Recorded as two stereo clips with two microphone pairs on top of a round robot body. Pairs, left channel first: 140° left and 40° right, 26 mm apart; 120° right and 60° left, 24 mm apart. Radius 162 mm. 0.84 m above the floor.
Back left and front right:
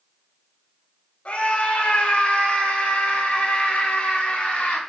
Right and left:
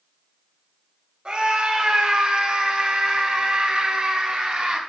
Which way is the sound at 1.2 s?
100° left.